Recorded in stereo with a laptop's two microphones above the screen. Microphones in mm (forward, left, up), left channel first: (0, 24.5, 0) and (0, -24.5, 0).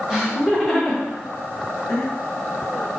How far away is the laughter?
About 1.3 m.